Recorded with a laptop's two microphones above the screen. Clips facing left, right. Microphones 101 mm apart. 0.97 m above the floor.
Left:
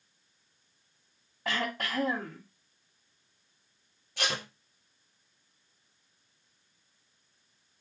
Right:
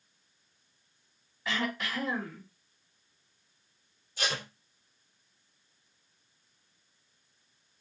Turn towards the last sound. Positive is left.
turn(degrees=70)  # may be behind; listen again after turning